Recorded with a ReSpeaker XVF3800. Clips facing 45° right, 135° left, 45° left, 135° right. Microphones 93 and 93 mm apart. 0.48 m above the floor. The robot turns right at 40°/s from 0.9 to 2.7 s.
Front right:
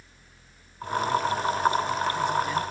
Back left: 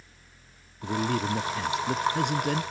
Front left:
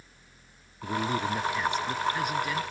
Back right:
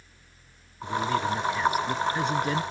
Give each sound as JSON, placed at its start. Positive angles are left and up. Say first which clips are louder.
{"t": 0.8, "sound": "a man speaking", "louder": "front right 2 dB, back right 3 dB", "azimuth_deg": 110}